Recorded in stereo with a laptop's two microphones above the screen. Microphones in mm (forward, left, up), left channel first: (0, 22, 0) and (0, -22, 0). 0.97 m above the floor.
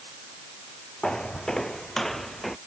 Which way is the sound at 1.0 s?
15° left (ahead or behind).